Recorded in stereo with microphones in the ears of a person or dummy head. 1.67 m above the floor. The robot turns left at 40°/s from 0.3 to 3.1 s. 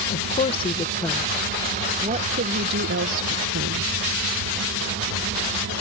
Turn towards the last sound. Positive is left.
turn(degrees=-70)